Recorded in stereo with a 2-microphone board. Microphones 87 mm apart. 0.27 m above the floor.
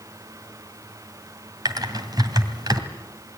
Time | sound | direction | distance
1.6 | typing on a keyboard | 45° right (ahead or behind) | 2 m